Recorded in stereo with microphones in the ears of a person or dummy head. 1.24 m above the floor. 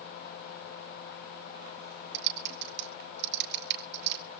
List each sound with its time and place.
2.1 s typing on a keyboard: 65° right (ahead or behind), 4 m